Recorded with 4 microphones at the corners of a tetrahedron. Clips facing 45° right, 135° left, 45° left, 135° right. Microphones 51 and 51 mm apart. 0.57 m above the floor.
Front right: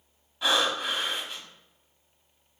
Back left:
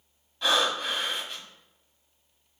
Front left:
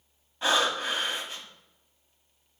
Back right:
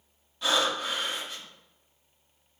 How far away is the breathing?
About 1.3 m.